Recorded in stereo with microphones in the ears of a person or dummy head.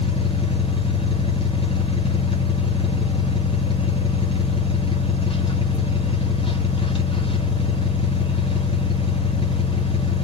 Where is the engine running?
25° left (ahead or behind), 0.7 m.